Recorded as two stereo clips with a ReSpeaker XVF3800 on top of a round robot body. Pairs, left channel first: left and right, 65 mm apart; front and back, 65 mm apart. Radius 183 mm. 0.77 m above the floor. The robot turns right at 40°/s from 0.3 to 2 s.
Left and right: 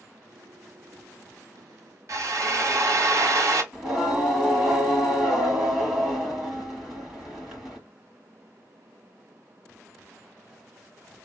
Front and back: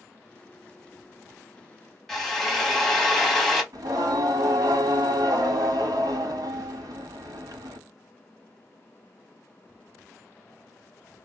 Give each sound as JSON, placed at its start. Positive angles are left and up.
{"t": 2.1, "sound": "a drill", "azimuth_deg": -85, "distance_m": 1.4}
{"t": 3.7, "sound": "singing", "azimuth_deg": -170, "distance_m": 1.2}